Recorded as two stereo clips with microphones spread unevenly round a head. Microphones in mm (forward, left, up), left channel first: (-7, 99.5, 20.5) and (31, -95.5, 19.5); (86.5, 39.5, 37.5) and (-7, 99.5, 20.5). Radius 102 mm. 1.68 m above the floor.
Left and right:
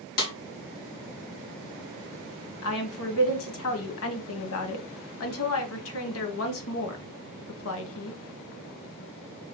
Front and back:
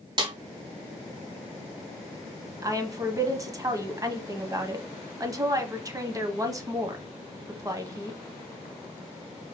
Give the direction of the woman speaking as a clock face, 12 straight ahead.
9 o'clock.